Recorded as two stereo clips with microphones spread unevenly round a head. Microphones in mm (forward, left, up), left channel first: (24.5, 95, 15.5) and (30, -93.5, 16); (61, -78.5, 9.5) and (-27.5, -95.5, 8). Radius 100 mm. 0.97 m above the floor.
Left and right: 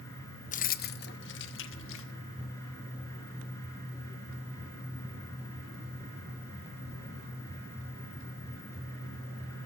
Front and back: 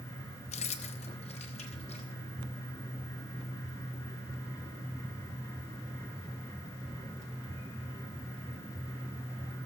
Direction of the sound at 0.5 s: 35° left.